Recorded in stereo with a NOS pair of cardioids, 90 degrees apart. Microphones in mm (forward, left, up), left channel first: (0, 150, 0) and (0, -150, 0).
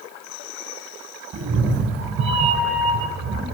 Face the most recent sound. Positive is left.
turn(degrees=-65)